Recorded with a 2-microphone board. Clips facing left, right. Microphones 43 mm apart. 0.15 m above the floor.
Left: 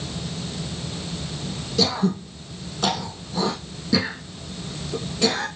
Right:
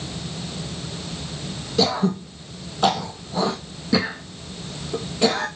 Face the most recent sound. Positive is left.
turn(degrees=-20)  # may be behind; listen again after turning